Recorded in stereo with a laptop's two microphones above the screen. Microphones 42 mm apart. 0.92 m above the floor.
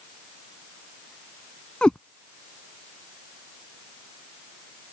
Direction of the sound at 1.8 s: 25° left (ahead or behind).